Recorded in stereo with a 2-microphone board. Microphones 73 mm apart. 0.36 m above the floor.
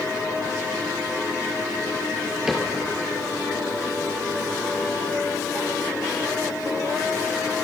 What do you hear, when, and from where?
2.5 s a cupboard door: 10° right (ahead or behind), 4 m